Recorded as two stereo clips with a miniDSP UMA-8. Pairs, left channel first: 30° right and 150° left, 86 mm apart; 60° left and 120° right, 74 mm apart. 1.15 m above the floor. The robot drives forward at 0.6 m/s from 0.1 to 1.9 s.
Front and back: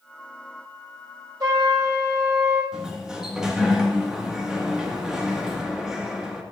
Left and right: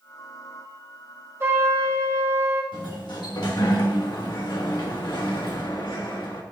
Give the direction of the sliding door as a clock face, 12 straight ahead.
10 o'clock.